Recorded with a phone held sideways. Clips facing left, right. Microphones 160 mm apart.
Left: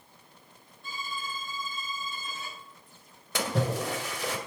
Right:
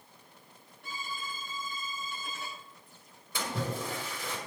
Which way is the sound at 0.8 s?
80° right.